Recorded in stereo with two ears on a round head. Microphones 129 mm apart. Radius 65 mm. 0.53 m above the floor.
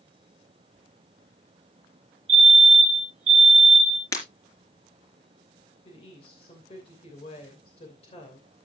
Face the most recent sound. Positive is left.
turn(degrees=45)  # may be behind; listen again after turning